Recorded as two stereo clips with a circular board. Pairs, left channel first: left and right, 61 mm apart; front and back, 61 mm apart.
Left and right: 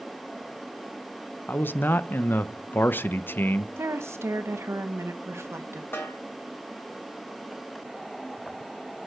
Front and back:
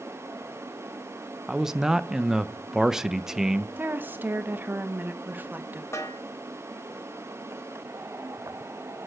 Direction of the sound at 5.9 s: 40° left.